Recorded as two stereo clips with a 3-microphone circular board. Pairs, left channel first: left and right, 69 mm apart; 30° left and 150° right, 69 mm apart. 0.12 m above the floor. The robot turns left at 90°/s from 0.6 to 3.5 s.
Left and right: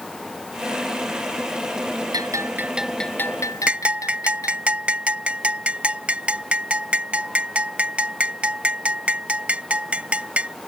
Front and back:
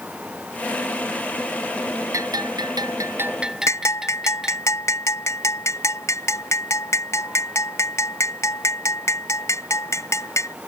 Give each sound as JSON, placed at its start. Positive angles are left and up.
{"t": 2.1, "sound": "a bell", "azimuth_deg": -110}
{"t": 3.7, "sound": "a bell", "azimuth_deg": -15}